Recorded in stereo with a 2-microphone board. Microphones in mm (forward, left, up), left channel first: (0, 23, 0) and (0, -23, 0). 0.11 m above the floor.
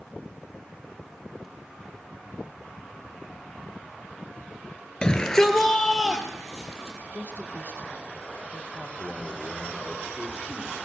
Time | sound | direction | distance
5.0 | a shout | 20° left (ahead or behind) | 2 m
7.1 | a woman speaking | 50° right (ahead or behind) | 4 m
9.0 | a man speaking | 10° right (ahead or behind) | 3.5 m